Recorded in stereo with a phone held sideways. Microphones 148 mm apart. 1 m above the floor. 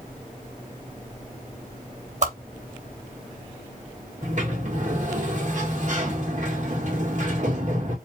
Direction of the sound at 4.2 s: 55° right (ahead or behind).